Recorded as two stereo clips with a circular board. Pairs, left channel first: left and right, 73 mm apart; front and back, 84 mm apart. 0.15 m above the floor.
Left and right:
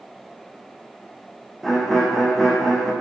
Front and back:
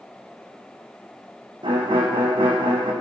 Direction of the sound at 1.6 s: 175° right.